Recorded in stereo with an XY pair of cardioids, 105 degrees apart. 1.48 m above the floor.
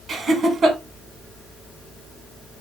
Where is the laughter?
50° right, 1.7 m.